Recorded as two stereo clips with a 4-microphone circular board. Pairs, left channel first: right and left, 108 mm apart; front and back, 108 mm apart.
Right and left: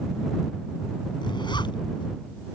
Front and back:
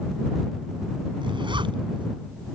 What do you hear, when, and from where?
1.2 s a zipper: 135° right